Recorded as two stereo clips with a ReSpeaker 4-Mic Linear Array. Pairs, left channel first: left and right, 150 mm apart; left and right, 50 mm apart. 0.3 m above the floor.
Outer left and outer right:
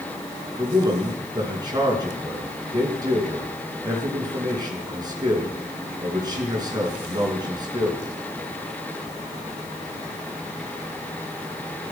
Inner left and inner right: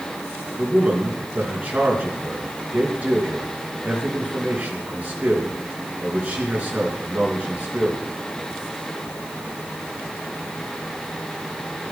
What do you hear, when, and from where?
0.6 s a man speaking: 30° right (ahead or behind), 3.5 m